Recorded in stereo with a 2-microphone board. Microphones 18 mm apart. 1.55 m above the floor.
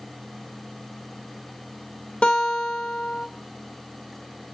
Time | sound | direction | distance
2.2 | a guitar | 85° left | 0.8 m